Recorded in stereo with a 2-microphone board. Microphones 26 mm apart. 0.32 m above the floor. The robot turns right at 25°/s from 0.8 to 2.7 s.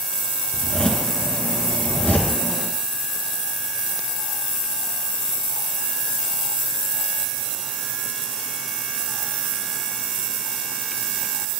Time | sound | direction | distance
0.5 | a zipper | 40° left (ahead or behind) | 3.5 m